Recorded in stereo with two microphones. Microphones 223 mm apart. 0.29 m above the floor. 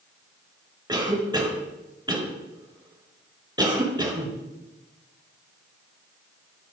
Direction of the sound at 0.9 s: 15° right (ahead or behind).